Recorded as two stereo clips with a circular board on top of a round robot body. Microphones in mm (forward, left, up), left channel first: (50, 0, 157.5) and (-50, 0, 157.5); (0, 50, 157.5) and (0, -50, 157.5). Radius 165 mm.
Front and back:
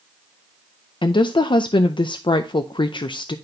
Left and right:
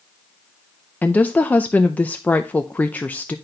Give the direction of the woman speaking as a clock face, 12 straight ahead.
11 o'clock.